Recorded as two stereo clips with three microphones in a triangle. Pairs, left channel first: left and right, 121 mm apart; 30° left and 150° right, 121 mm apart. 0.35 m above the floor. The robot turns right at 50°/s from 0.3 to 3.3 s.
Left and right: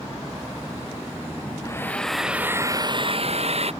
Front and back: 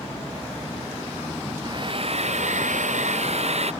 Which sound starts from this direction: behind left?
A hair dryer, at 1.6 s.